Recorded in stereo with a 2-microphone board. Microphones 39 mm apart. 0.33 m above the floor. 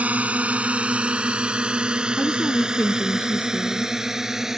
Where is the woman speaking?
50° left (ahead or behind).